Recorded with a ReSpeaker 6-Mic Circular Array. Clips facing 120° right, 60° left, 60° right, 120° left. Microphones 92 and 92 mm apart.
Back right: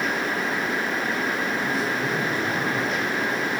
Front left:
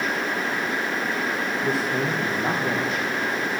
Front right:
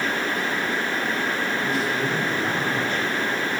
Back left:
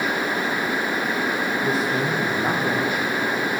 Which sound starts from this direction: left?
A man speaking, at 1.6 s.